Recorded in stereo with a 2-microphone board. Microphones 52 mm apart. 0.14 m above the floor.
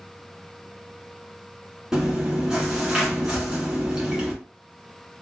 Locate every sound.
1.9 s chewing: 10° right (ahead or behind), 1.1 m
3.3 s a whoosh: 5° left (ahead or behind), 0.6 m